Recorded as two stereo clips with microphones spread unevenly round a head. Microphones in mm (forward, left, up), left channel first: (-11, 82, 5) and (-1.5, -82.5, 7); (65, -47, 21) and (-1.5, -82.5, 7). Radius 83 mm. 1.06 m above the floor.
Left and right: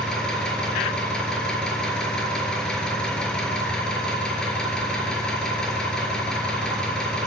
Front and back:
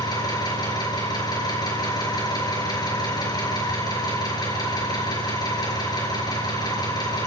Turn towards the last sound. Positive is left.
turn(degrees=5)